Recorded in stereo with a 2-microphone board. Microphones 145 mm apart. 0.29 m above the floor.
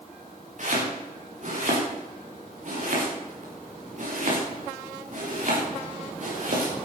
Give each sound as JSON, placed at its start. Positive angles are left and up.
{"t": 0.6, "sound": "chopping", "side_deg": -55, "distance_m": 5.5}